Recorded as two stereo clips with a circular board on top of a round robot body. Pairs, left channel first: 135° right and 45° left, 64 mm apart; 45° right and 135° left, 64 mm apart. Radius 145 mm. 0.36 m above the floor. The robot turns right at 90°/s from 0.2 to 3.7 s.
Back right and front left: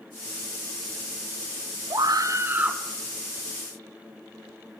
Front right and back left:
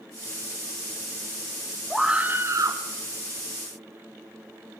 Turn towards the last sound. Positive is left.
turn(degrees=-155)